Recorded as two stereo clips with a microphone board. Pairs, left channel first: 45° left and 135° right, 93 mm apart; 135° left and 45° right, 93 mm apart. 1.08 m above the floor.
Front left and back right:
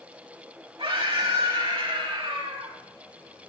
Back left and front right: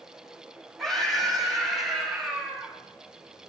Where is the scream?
140° right, 7.5 m; by 2.7 s 130° right, 8.5 m.